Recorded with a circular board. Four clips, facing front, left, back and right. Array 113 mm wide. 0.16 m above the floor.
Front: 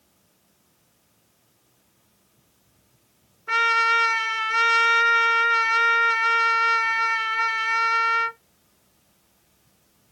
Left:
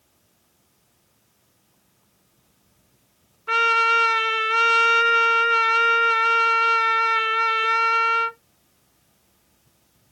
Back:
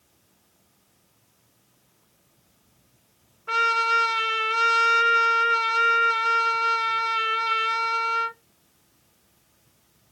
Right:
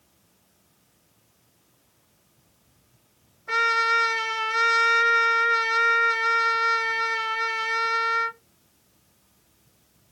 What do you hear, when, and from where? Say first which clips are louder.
3.5 s a trumpet: left 3 dB, front 1 dB; 105° left, 1.8 m